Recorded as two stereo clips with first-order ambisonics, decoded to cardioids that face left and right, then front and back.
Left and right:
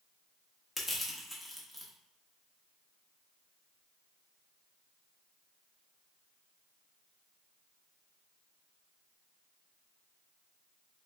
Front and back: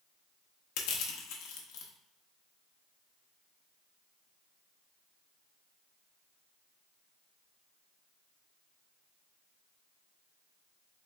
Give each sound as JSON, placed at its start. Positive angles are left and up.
{"t": 0.8, "sound": "crushing", "azimuth_deg": 0, "distance_m": 0.7}